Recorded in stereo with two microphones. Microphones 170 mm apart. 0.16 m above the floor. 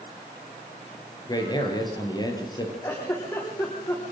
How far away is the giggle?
About 9 m.